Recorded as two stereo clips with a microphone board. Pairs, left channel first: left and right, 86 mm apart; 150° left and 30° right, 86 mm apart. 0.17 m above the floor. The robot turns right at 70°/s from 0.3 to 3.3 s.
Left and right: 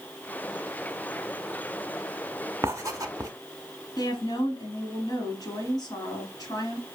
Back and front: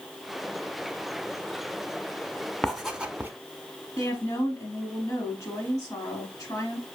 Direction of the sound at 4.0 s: 115° left.